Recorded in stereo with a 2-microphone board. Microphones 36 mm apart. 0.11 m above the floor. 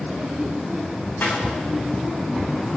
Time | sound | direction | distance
1.2 | a snare drum | 75° left (ahead or behind) | 7 m